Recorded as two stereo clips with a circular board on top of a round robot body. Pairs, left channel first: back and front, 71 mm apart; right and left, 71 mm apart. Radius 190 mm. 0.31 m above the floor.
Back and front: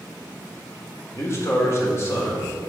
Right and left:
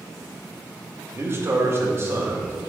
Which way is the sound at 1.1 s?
135° left.